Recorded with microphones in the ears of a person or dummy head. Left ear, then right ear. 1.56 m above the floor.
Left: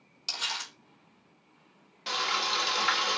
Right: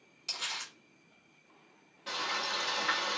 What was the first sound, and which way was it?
Crumpling, 25° left (ahead or behind).